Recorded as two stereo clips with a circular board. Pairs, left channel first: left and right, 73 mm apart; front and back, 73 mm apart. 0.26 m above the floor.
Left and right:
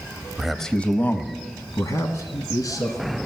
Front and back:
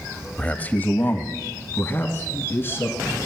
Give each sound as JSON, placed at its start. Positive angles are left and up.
{"t": 0.4, "sound": "a man speaking", "azimuth_deg": -25, "distance_m": 0.9}